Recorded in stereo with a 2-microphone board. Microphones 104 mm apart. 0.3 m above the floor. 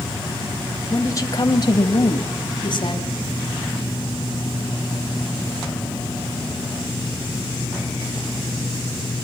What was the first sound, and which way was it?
A woman speaking, 35° left (ahead or behind).